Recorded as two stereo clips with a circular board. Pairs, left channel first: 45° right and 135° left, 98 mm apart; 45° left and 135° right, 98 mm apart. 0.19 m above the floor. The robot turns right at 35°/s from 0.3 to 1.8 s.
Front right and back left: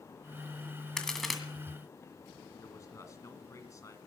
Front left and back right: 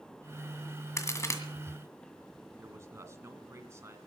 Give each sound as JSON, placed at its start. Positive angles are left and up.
{"t": 1.0, "sound": "a crack", "azimuth_deg": 30, "distance_m": 1.8}
{"t": 2.6, "sound": "a man speaking", "azimuth_deg": -90, "distance_m": 1.8}